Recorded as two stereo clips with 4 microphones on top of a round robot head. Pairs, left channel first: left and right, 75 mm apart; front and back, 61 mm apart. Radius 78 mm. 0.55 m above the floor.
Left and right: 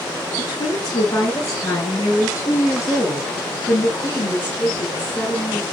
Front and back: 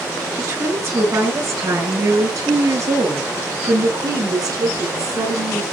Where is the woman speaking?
135° left, 8 m; by 5.7 s 165° left, 7.5 m.